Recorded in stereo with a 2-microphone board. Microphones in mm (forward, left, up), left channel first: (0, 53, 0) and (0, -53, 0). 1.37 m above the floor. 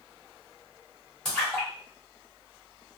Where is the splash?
5° left (ahead or behind), 1.9 m.